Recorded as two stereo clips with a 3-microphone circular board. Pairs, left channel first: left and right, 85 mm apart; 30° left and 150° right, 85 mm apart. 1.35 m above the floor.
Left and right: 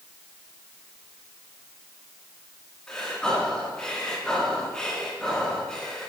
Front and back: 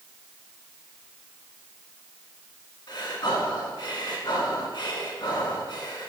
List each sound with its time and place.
2.9 s breathing: 10° left, 3.5 m